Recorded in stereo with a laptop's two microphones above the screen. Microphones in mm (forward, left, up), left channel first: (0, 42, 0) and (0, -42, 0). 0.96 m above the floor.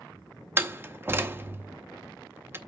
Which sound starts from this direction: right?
A door slam, at 0.6 s.